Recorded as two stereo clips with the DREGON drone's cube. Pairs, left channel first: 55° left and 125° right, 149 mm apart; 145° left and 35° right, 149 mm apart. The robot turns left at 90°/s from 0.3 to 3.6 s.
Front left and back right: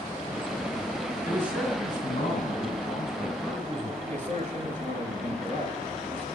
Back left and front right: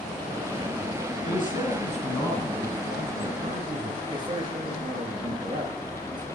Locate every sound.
1.2 s a man speaking: 155° left, 3 m; by 4.0 s 55° right, 3 m
4.1 s a man speaking: 95° right, 4 m